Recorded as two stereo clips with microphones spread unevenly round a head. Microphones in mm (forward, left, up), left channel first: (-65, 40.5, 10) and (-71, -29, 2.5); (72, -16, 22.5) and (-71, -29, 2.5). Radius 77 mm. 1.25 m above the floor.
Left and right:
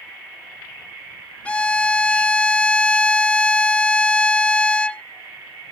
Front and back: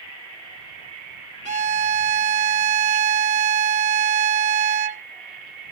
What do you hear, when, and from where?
1.4 s a violin: 145° left